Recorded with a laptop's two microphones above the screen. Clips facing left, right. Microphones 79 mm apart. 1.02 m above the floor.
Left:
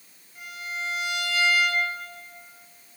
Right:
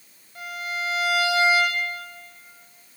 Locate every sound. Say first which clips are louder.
0.3 s a violin: right 4 dB; 80° right, 4 m